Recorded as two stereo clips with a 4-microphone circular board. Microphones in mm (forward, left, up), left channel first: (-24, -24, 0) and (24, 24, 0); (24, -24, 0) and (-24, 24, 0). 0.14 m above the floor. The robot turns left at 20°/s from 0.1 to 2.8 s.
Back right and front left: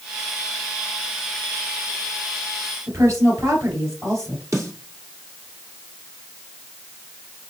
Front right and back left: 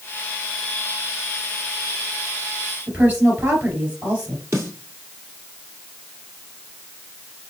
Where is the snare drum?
85° left, 2.5 m.